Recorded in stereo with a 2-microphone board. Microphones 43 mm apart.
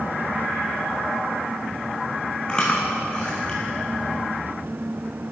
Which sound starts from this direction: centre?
Chewing, at 2.5 s.